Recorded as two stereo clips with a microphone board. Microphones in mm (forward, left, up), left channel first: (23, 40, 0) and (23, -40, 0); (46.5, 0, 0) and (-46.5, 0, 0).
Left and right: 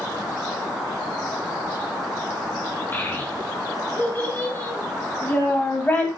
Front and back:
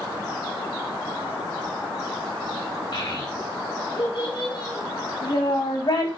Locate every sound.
2.9 s a child speaking: 25° left, 4 m